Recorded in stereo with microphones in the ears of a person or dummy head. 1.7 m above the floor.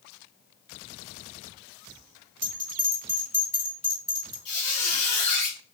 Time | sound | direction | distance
2.4 | a bell | 10° right (ahead or behind) | 2 m
4.5 | a squeak | 35° left (ahead or behind) | 1.5 m